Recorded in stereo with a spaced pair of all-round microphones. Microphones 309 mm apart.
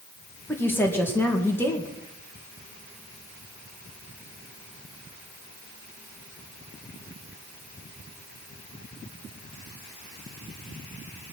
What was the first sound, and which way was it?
A woman speaking, 5° left (ahead or behind).